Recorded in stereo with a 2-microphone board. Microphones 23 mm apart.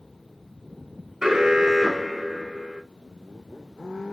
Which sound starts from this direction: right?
An alarm, at 1.2 s.